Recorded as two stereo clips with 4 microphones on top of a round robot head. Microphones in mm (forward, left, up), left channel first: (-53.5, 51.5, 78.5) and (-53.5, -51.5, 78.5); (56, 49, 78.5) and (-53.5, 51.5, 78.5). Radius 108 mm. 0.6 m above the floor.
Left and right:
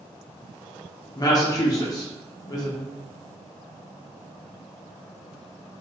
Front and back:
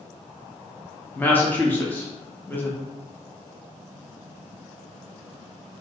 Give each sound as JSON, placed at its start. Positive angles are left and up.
{"t": 1.1, "sound": "a woman speaking", "azimuth_deg": 65, "distance_m": 0.8}